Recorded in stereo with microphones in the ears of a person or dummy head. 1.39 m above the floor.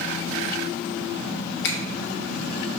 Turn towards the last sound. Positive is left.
turn(degrees=65)  # may be behind; listen again after turning